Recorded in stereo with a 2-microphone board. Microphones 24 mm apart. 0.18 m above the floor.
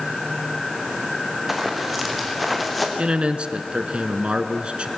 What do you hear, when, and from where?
1.5 s running footsteps: 5° right (ahead or behind), 6 m; by 2.9 s centre (ahead or behind), 4.5 m
3.0 s a man speaking: 50° right (ahead or behind), 1.7 m